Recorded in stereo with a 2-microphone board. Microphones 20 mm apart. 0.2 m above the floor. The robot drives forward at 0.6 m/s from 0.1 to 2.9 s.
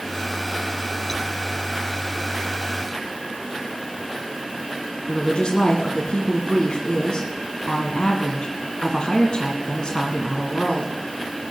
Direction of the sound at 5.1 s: 50° left (ahead or behind).